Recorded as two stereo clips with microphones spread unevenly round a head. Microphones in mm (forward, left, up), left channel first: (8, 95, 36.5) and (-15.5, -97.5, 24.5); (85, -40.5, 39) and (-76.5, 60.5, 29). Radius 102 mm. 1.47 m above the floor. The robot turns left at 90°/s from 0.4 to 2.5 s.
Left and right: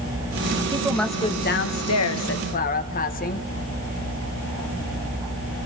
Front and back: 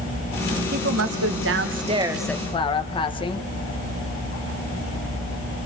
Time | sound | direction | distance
0.7 | a woman speaking | 165° right | 1.6 m